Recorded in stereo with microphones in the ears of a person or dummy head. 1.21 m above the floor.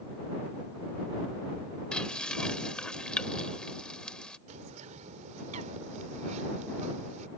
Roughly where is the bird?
Right.